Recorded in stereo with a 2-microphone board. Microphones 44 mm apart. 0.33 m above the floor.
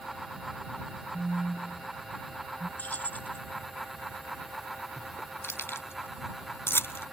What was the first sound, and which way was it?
A phone buzzing, 65° right (ahead or behind).